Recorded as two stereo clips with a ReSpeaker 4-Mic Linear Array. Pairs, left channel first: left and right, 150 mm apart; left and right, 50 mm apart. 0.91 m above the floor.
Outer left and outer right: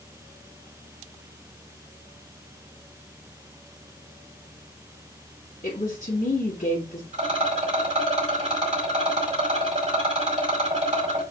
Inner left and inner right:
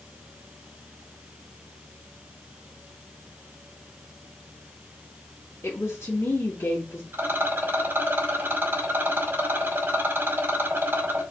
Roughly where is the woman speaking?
Left.